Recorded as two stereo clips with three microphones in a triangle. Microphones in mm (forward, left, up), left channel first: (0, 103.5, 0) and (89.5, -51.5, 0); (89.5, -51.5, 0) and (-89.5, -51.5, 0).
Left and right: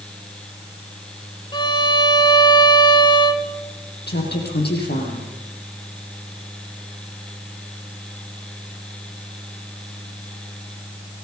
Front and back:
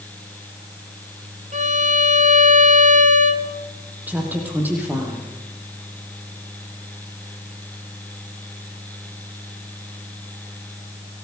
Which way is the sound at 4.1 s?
100° left.